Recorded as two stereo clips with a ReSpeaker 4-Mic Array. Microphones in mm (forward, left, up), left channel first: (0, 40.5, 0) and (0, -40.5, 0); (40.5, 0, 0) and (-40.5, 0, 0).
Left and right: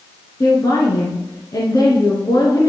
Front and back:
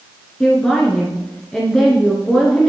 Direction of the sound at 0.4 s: 80° left.